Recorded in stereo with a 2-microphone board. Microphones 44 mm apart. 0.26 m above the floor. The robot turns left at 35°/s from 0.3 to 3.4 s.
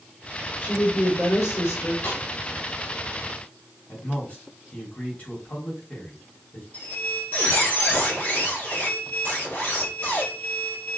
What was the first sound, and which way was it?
A woman speaking, 135° left.